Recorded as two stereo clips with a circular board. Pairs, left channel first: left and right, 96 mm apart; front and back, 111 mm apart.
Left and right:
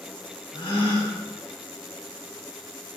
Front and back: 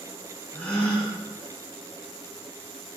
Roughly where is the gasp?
Left.